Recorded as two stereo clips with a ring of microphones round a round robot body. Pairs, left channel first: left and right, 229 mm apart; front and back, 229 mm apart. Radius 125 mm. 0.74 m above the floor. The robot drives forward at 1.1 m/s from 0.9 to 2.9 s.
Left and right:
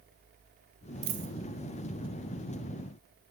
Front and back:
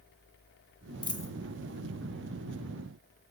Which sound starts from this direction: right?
A dropped coin, at 1.0 s.